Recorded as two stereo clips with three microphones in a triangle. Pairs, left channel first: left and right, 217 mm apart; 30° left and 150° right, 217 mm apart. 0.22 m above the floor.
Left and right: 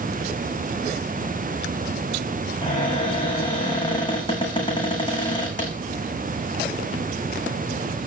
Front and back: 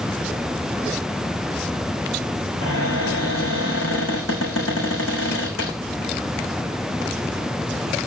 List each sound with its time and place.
2.6 s a cupboard door: 20° left, 8 m